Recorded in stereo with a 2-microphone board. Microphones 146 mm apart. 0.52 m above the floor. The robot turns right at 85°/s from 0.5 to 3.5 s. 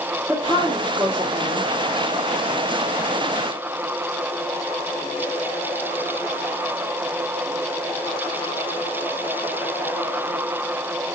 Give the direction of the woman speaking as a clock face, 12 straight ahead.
7 o'clock.